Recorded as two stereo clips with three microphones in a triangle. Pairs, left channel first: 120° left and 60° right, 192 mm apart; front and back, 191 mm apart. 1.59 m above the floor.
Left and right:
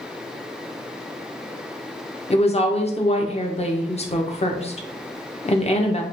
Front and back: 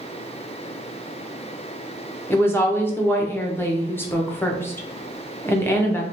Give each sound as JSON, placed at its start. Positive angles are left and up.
{"t": 2.3, "sound": "a woman speaking", "azimuth_deg": 75, "distance_m": 0.5}